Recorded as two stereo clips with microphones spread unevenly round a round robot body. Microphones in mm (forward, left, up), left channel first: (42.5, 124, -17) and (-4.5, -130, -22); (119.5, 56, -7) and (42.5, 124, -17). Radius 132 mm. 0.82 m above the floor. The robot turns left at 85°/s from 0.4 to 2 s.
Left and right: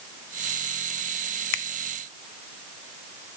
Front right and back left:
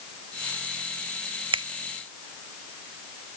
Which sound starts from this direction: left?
A finger snap, at 1.5 s.